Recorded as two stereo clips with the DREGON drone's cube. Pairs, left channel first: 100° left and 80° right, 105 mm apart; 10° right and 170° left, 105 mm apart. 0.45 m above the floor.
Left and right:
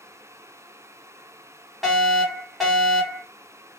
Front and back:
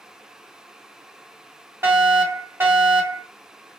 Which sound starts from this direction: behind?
A fire alarm, at 1.8 s.